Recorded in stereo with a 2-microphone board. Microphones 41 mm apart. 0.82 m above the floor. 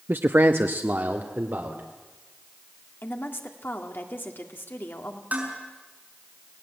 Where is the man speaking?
55° right (ahead or behind), 0.5 m; by 1.9 s 50° right (ahead or behind), 2.5 m.